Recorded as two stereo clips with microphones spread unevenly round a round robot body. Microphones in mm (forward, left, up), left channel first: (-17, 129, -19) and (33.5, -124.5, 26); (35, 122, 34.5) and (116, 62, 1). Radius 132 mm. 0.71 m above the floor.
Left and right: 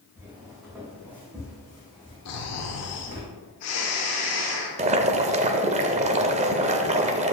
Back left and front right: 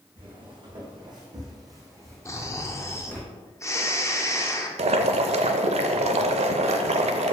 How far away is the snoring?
About 1.2 m.